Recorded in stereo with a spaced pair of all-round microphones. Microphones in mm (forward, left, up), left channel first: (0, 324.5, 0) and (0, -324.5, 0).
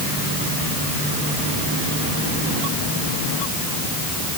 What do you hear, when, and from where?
Only background noise.